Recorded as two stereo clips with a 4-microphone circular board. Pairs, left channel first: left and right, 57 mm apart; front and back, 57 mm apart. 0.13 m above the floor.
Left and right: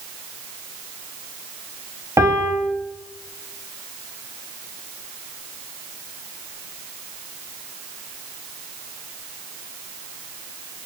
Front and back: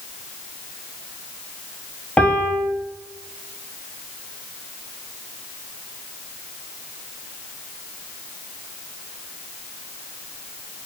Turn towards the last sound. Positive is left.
turn(degrees=-65)